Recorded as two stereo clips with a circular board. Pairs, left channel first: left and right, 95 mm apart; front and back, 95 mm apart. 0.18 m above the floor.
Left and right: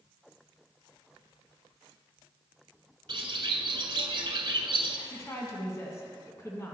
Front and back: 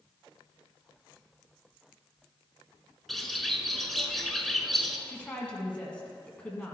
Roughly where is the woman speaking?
Ahead left.